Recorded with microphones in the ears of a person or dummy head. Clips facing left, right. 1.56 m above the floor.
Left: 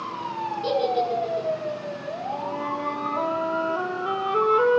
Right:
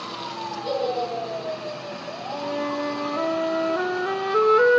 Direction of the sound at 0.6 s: 65° left (ahead or behind).